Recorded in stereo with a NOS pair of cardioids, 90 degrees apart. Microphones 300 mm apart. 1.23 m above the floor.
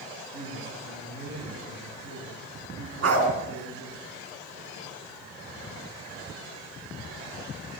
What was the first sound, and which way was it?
A woman speaking, 60° right.